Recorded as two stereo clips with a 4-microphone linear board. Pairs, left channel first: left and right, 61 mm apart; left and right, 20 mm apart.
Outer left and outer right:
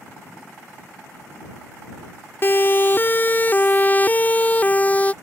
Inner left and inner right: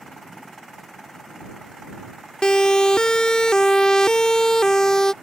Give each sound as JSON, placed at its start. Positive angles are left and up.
{"t": 2.4, "sound": "a siren", "side_deg": 40}